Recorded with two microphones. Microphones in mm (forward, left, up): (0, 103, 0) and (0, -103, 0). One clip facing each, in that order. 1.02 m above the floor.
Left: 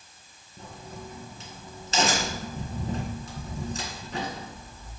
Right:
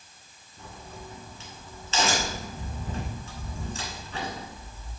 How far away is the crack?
About 2 m.